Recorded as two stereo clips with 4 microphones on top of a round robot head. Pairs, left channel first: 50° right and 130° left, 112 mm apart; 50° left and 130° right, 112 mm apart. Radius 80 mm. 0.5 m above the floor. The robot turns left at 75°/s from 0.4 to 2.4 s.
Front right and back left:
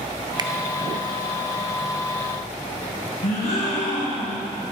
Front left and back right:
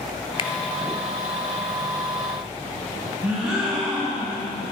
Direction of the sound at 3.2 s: 50° right.